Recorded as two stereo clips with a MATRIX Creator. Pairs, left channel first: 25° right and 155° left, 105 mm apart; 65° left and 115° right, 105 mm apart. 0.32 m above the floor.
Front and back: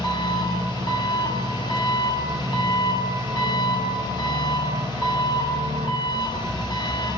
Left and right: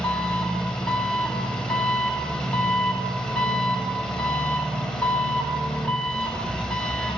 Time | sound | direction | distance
0.0 | an engine running | 15° right | 1.0 m